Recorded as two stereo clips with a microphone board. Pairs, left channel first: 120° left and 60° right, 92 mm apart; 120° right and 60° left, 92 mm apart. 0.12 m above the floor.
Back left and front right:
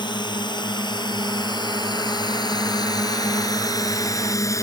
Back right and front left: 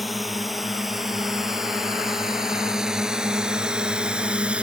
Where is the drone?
150° left; by 4.6 s 130° left.